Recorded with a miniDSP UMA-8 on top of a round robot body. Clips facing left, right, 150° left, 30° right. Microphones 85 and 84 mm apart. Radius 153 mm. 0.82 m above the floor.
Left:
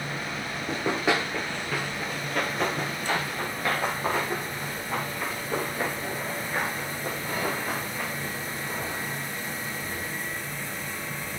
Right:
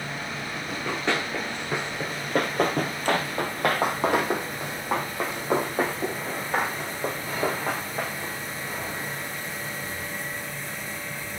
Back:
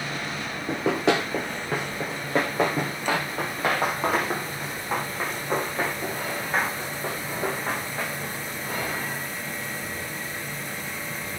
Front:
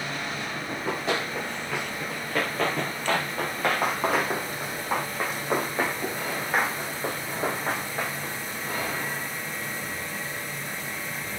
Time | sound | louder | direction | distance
0.7 | running footsteps | left 2 dB, back 7 dB | 155° left | 1.1 m